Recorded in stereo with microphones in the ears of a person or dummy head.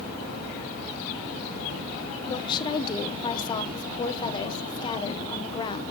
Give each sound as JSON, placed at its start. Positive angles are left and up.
{"t": 2.3, "sound": "a woman speaking", "side_deg": 30, "distance_m": 1.0}